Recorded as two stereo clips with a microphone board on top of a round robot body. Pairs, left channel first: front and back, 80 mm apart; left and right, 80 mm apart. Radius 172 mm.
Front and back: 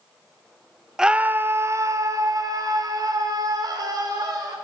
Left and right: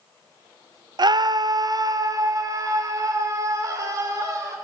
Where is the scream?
100° right, 0.7 m; by 4.5 s 145° right, 3.5 m.